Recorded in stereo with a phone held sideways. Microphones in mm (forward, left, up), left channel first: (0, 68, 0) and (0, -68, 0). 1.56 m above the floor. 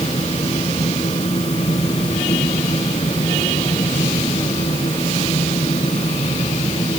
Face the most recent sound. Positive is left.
turn(degrees=45)  # may be behind; listen again after turning